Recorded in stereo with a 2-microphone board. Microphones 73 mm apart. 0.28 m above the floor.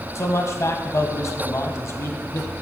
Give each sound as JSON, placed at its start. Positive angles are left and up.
{"t": 0.1, "sound": "a man speaking", "side_deg": 45, "distance_m": 1.4}